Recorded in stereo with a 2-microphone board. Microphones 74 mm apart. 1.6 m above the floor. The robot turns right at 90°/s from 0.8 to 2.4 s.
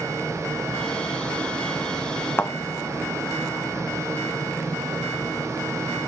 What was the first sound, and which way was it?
A thud, 30° left (ahead or behind).